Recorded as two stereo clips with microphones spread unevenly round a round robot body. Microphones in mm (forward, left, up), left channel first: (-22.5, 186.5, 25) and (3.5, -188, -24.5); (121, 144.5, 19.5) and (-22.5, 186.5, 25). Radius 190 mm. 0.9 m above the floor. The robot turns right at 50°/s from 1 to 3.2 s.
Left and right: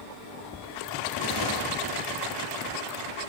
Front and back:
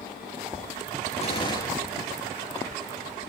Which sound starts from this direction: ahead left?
A gunshot, at 1.2 s.